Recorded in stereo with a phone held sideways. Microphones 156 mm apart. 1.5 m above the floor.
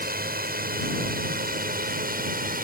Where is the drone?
75° right (ahead or behind); by 2.6 s 65° right (ahead or behind).